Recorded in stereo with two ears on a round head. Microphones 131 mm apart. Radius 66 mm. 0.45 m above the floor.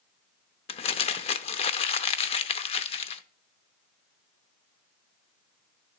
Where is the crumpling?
40° left (ahead or behind), 0.6 m.